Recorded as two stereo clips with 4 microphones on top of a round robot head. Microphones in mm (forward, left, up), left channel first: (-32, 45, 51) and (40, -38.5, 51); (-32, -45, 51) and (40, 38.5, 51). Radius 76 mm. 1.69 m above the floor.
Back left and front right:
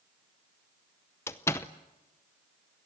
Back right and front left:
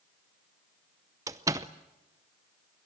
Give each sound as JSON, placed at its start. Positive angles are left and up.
{"t": 1.3, "sound": "a door slam", "azimuth_deg": 90, "distance_m": 0.7}